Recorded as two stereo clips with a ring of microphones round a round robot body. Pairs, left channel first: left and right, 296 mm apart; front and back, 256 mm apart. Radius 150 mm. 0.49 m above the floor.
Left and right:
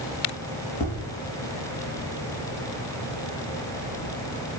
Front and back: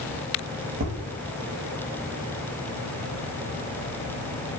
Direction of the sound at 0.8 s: 135° left.